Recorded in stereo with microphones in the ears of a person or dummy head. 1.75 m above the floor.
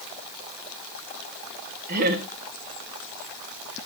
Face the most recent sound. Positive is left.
turn(degrees=-45)  # may be behind; listen again after turning